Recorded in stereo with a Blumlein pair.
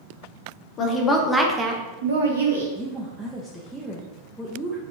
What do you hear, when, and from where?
0.8 s a woman speaking: 30° left, 0.9 m; by 2.6 s 75° right, 1.0 m
2.8 s a woman speaking: 5° right, 0.6 m